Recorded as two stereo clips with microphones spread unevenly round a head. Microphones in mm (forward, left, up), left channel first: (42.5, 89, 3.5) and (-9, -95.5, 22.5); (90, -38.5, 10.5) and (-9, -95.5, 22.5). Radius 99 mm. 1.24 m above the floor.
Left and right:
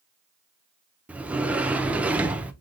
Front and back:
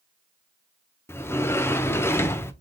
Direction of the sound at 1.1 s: 20° right.